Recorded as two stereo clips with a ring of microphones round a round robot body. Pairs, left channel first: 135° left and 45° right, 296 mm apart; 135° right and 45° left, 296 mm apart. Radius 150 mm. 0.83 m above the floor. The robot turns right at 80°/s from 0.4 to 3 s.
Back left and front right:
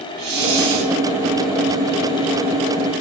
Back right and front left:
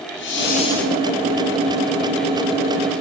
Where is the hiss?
80° right, 2 m; by 0.9 s 40° right, 2 m.